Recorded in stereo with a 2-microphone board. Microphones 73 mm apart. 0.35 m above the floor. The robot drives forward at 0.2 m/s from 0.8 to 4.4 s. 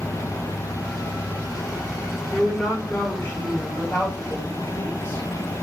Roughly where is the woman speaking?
Left.